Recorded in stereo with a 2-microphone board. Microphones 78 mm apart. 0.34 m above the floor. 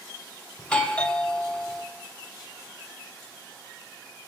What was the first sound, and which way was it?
A doorbell, 15° left (ahead or behind).